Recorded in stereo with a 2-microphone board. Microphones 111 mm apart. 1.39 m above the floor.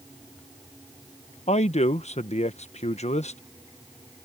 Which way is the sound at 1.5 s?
80° left.